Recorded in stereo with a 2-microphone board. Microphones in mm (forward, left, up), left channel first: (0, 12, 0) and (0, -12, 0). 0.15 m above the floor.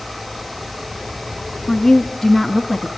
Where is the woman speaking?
10° left (ahead or behind), 1.1 m; by 2.9 s 15° right (ahead or behind), 1.3 m.